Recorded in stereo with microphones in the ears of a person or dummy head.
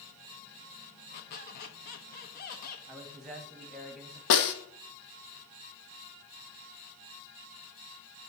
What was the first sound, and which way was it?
A squeak, 50° left (ahead or behind).